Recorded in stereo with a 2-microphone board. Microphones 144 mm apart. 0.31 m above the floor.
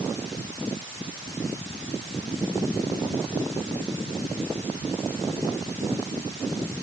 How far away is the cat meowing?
I don't hear a cat meowing.